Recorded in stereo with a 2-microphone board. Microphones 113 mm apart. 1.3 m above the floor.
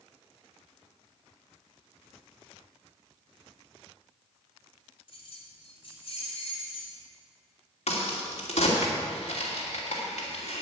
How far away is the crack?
About 3 m.